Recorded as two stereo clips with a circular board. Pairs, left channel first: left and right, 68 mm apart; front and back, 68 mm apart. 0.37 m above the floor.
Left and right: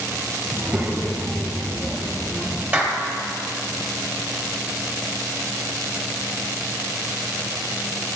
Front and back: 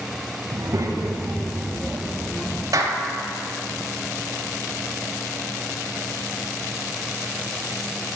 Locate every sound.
0.5 s a child speaking: 170° right, 1.5 m; by 2.6 s 35° left, 0.9 m
2.7 s a clap: 155° right, 1.5 m